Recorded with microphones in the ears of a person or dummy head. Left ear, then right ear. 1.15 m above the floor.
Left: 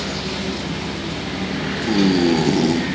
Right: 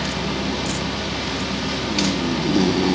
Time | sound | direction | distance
0.0 | a fan | 25° right (ahead or behind) | 1.6 m